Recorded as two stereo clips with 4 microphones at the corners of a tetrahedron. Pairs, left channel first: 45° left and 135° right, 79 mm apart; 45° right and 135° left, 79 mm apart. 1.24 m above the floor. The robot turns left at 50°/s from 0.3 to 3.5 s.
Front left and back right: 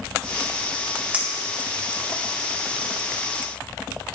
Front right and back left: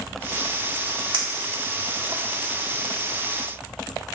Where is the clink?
150° left, 1.9 m; by 2.2 s 95° left, 1.9 m.